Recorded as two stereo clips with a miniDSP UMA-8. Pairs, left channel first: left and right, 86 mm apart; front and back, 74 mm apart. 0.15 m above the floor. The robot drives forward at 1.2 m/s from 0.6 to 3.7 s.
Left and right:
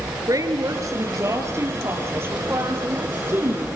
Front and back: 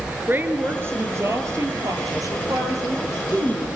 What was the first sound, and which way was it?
A woman speaking, 125° right.